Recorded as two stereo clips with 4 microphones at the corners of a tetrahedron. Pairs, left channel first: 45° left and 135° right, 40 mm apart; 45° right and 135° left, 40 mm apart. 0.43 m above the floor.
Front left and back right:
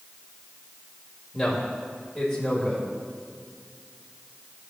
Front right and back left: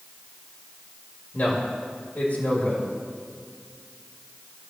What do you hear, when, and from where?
1.3 s a man speaking: 40° right, 1.9 m